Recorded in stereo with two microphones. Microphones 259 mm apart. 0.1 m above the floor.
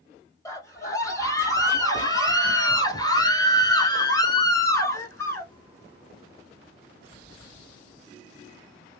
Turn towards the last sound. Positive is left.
turn(degrees=10)  # may be behind; listen again after turning